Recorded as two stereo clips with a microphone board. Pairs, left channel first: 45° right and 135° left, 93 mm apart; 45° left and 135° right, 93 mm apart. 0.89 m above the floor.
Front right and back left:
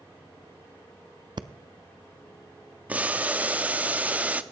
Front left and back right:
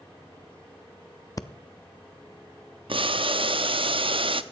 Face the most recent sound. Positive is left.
turn(degrees=-155)